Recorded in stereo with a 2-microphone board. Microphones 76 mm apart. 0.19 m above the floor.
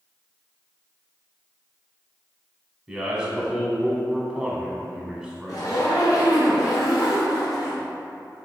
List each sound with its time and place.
2.9 s a man speaking: 10° right (ahead or behind), 1.1 m
5.5 s a zipper: 55° left (ahead or behind), 2.0 m